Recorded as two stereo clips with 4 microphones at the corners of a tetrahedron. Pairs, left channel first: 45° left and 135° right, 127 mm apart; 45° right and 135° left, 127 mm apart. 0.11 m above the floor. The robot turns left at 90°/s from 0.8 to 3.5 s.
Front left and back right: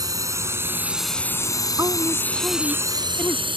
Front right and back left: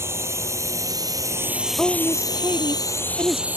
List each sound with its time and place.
0.0 s a drone: 170° right; by 3.6 s 155° right
1.8 s a woman speaking: 125° right; by 3.5 s 85° left